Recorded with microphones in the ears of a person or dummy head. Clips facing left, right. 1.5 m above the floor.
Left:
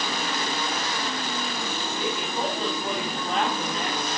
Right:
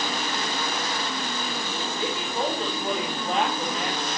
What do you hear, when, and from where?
2.0 s a woman speaking: 5° right (ahead or behind), 9.5 m